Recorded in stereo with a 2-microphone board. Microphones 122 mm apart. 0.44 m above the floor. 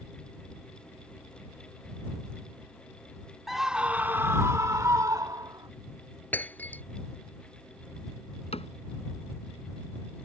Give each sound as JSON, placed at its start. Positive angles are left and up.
{"t": 3.5, "sound": "a scream", "side_deg": 0}
{"t": 6.3, "sound": "breaking glass", "side_deg": 15}
{"t": 8.5, "sound": "a cupboard door", "side_deg": 60}